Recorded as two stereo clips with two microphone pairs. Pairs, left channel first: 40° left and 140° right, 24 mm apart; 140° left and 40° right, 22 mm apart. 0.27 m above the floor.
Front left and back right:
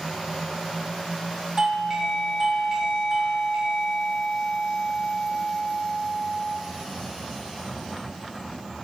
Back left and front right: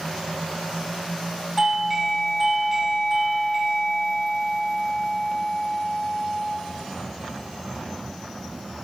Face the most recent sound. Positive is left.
turn(degrees=-105)